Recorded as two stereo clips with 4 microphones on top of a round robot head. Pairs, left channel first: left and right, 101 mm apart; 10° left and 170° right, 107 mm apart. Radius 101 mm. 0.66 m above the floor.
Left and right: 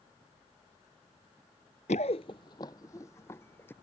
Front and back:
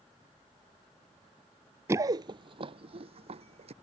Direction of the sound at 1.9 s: 125° left.